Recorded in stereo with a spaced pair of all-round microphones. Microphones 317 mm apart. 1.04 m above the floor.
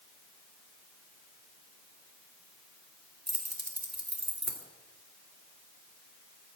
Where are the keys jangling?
50° right (ahead or behind), 2 m.